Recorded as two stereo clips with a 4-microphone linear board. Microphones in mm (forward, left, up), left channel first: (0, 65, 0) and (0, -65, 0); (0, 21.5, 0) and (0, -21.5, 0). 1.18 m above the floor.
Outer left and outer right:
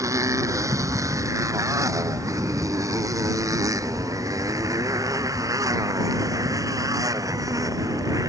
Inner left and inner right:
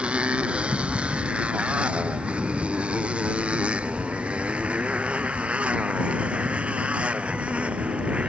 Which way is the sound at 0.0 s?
25° right (ahead or behind).